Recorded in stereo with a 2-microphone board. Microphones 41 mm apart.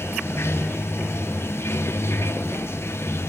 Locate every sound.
0.0 s running water: 80° left, 0.8 m